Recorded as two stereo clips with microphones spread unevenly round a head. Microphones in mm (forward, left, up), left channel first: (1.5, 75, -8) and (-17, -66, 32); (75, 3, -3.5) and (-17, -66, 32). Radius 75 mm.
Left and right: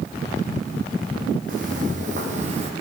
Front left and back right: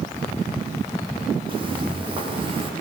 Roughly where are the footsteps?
Behind right.